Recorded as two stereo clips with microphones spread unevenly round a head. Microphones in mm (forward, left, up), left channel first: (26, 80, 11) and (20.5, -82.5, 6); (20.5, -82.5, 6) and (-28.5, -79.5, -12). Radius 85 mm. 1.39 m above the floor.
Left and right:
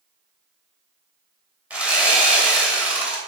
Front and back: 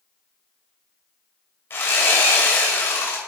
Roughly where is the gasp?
No gasp in this recording.